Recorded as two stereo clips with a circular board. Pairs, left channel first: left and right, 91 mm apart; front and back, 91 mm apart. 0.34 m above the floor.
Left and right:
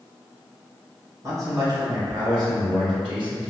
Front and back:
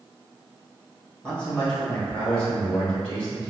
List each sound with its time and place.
1.2 s a man speaking: 70° right, 1.3 m; by 3.5 s 75° right, 2.5 m